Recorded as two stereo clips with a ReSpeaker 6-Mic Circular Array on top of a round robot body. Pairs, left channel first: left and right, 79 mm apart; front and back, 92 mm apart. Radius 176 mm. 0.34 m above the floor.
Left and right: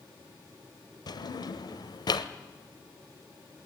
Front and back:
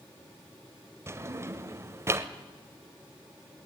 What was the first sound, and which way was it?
A drawer, 120° left.